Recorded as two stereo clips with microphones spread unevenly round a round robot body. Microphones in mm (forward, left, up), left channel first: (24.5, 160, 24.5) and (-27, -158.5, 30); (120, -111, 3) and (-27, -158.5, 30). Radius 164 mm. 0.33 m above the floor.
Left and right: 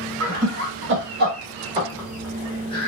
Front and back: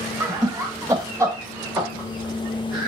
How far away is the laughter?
About 1.5 m.